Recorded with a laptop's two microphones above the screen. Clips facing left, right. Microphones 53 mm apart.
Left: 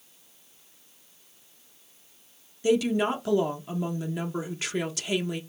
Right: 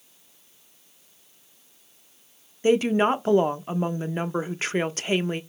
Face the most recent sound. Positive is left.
turn(degrees=-40)  # may be behind; listen again after turning